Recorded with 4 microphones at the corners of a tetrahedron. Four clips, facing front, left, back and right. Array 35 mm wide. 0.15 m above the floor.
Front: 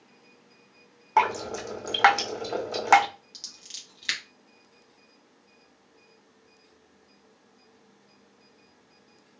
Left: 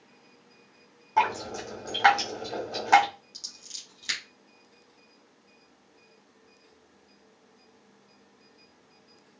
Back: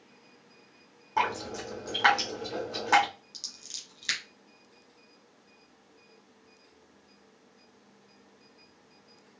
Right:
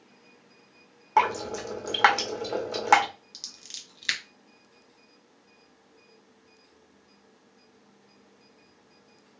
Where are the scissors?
65° right, 2.0 m.